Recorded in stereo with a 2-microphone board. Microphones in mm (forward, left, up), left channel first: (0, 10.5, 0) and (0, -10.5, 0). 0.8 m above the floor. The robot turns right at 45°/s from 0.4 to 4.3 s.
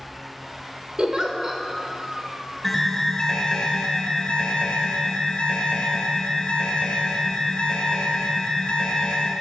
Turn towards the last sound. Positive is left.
turn(degrees=80)